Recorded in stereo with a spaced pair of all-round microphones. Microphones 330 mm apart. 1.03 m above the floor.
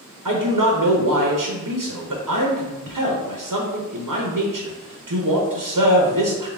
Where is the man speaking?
70° right (ahead or behind), 0.8 m.